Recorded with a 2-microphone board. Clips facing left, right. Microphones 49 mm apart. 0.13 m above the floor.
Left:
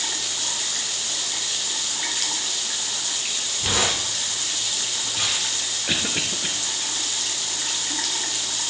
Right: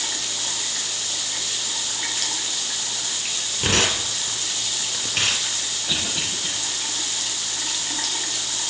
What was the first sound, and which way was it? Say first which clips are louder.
Tearing paper: right 3 dB; 55° right (ahead or behind).